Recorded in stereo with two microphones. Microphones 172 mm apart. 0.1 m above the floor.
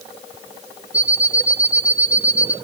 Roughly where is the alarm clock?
Right.